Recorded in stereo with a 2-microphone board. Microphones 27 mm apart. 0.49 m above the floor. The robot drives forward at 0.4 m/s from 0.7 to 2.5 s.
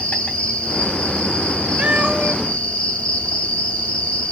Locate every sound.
0.0 s an insect: 45° left (ahead or behind), 3 m; by 4.3 s 40° left (ahead or behind), 3 m
1.8 s a cat meowing: 65° right (ahead or behind), 0.9 m